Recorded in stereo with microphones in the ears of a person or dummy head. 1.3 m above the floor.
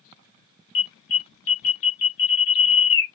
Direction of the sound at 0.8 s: 65° left (ahead or behind).